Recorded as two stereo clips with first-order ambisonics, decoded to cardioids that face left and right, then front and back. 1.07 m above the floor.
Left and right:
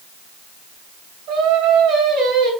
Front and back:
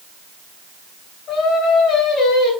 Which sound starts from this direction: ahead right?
Singing, at 1.3 s.